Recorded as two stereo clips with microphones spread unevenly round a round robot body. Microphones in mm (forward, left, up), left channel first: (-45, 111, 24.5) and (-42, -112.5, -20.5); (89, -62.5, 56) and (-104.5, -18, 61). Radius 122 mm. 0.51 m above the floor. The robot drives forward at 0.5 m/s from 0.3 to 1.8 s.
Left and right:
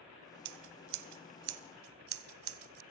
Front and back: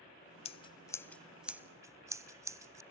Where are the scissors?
75° right, 0.9 m; by 2.8 s 115° right, 1.0 m.